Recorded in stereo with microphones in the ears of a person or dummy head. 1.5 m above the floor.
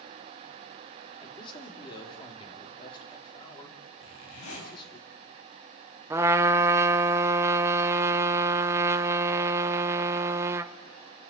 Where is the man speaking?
25° left (ahead or behind), 3 m.